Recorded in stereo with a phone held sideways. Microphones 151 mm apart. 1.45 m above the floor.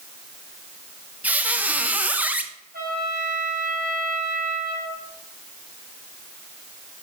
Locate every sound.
1.2 s a squeak: 10° right (ahead or behind), 0.6 m
2.7 s a trumpet: 80° right, 4.5 m